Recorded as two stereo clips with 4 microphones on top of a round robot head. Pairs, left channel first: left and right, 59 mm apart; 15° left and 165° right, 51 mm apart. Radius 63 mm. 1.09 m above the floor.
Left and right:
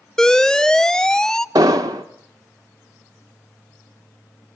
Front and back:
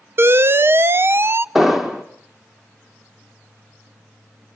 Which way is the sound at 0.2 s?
165° left.